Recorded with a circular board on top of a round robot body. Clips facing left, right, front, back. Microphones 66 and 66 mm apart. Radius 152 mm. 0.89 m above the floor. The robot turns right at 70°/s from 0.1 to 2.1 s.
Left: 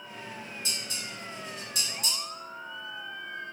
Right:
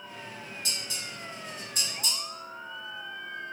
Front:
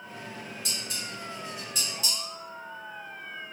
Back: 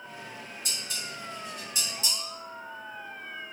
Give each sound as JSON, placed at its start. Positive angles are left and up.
{"t": 0.7, "sound": "dishes clattering", "azimuth_deg": 20, "distance_m": 1.9}